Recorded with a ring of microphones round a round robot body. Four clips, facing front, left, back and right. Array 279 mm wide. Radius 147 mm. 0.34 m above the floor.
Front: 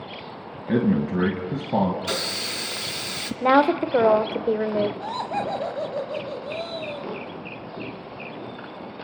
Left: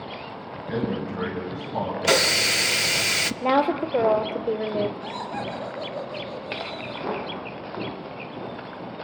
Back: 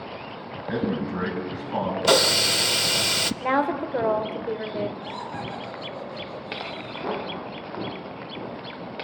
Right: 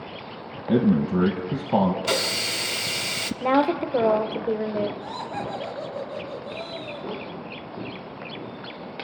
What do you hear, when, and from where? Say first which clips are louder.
0.7 s a man speaking: right 7 dB, front 5 dB; 55° right, 2.5 m
2.0 s a hiss: left 4 dB, back 9 dB; 155° left, 0.6 m
3.4 s a woman speaking: right 1 dB, front 6 dB; straight ahead, 1.5 m
5.0 s laughter: even, front 6 dB; 5° right, 2.5 m